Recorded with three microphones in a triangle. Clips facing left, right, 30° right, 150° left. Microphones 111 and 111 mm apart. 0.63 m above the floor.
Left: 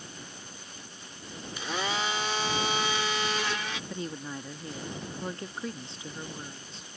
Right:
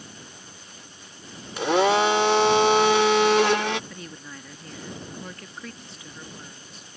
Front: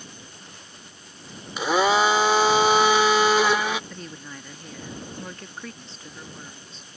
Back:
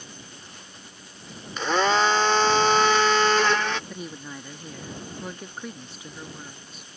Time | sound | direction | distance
1.6 | a blender | 110° right | ?
3.9 | a woman speaking | 95° left | ?